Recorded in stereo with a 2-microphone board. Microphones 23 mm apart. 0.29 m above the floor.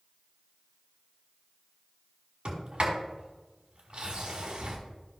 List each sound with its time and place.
2.5 s a sliding door: 60° right (ahead or behind), 3 m